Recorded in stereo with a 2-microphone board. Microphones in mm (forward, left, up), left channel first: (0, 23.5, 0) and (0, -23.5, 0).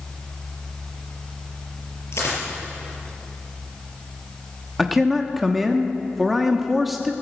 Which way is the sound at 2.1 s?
70° left (ahead or behind).